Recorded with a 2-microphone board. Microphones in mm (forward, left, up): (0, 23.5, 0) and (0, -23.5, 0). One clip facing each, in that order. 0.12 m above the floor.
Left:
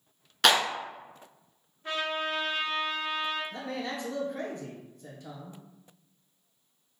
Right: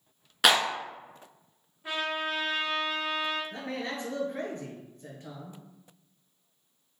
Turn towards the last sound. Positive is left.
turn(degrees=-40)  # may be behind; listen again after turning